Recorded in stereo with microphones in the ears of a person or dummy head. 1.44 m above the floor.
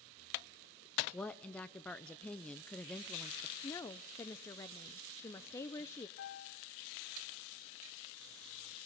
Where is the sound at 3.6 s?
15° left (ahead or behind), 0.8 m.